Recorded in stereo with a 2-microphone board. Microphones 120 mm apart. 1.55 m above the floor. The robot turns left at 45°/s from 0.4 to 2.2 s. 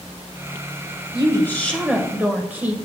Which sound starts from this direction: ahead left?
A woman speaking, at 1.1 s.